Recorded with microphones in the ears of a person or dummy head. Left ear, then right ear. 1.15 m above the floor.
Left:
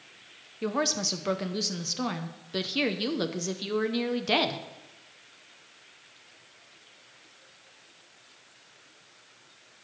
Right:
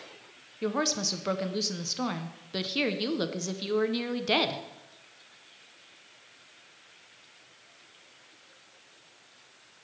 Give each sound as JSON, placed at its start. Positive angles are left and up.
{"t": 0.6, "sound": "a woman speaking", "side_deg": -5, "distance_m": 0.7}